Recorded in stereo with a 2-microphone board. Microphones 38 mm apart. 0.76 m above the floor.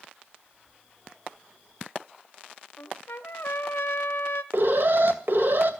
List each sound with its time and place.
2.8 s a trumpet: 80° left, 1.2 m
4.5 s an alarm: 65° right (ahead or behind), 2.5 m